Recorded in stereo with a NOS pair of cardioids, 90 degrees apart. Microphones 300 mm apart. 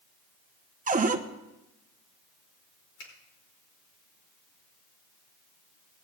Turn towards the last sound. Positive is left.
turn(degrees=70)